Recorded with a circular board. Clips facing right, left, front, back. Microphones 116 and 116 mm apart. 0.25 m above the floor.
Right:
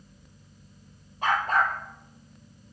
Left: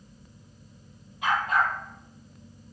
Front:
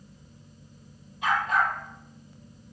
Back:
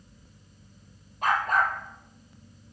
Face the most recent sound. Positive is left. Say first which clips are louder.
# right 1 dB, back 1 dB
turn(degrees=-140)